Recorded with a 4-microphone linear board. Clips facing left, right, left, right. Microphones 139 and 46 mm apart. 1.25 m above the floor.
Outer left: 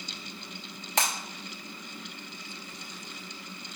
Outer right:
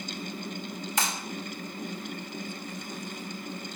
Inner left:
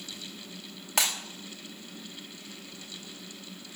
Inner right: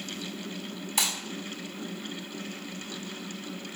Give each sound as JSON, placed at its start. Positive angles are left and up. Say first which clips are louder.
{"t": 1.0, "sound": "breaking glass", "louder": "outer left 2 dB, inner left 2 dB", "side_deg": 70, "distance_m": 2.5}